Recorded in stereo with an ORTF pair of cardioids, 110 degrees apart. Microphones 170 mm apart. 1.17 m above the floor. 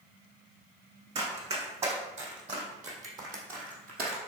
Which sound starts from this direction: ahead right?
Running footsteps, at 1.1 s.